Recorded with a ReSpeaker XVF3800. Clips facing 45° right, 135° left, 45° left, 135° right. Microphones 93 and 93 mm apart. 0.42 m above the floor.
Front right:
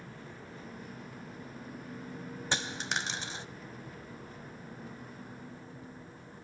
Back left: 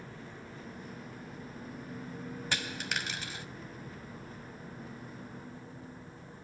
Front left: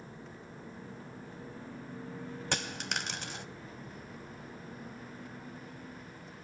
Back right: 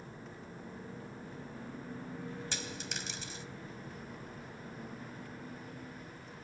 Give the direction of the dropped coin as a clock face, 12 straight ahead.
11 o'clock.